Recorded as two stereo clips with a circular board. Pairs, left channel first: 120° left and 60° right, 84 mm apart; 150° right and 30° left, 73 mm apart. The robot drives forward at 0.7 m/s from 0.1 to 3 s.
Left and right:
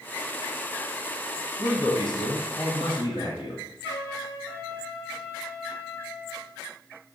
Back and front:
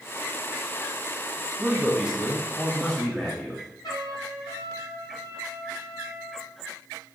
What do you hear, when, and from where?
1.6 s a man speaking: 95° left, 1.5 m; by 3.6 s 125° left, 1.9 m
3.8 s a trumpet: 170° right, 3 m